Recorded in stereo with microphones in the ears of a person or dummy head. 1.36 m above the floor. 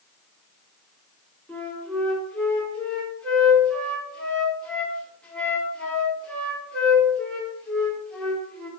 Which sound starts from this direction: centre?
A flute, at 1.5 s.